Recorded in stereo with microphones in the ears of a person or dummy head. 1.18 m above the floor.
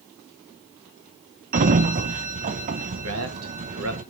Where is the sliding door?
40° right (ahead or behind), 0.7 m.